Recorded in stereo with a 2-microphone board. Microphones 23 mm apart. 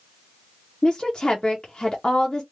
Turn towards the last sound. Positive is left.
turn(degrees=25)  # may be behind; listen again after turning